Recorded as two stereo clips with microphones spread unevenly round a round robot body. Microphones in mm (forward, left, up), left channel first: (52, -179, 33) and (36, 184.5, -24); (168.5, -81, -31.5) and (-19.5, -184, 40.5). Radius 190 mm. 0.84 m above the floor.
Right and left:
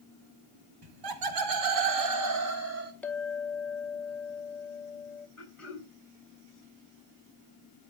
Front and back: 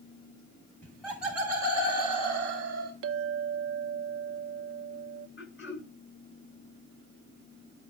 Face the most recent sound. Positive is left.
turn(degrees=0)